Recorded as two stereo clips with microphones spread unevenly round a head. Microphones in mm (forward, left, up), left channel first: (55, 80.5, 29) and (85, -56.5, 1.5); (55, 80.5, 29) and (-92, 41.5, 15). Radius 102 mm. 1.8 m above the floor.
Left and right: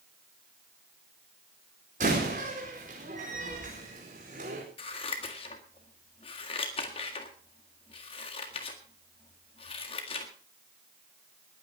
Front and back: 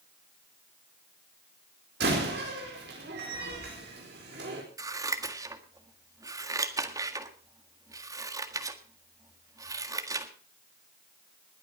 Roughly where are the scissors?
Behind left.